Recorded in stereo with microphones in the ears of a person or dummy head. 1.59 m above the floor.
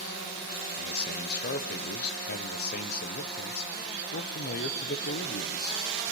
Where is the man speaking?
55° left (ahead or behind), 1.0 m.